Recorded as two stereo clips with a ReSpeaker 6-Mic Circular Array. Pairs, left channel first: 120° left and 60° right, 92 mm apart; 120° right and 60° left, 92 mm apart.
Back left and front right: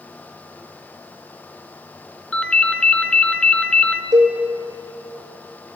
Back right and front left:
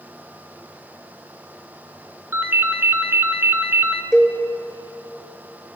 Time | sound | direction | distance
2.3 | a ringtone | 55° left | 0.6 m
4.1 | a cowbell | 20° right | 1.2 m